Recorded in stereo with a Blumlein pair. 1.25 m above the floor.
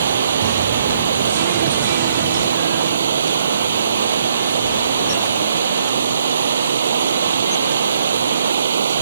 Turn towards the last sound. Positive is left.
turn(degrees=-70)